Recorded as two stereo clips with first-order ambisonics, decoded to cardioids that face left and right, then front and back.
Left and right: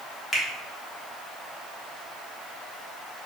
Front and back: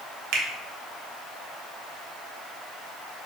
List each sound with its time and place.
0.3 s a finger snap: 165° left, 0.8 m